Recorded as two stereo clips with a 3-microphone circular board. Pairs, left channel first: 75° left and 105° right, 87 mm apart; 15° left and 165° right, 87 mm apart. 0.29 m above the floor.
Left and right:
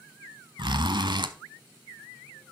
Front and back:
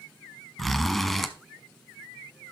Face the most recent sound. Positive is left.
turn(degrees=-70)